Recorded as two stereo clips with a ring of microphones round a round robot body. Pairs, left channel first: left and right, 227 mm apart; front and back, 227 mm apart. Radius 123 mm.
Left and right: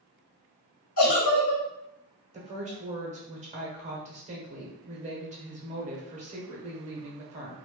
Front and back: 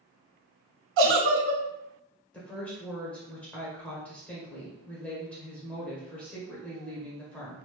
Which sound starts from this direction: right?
A woman speaking, at 2.3 s.